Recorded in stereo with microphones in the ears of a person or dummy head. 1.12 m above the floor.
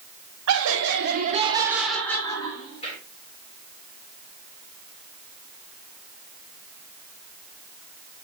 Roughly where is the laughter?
Right.